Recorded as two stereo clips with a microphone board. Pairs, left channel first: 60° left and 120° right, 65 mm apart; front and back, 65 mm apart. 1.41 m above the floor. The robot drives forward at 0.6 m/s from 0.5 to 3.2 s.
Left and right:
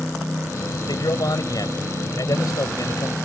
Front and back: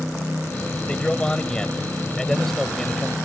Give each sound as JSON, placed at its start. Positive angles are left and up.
{"t": 0.9, "sound": "a man speaking", "azimuth_deg": 75}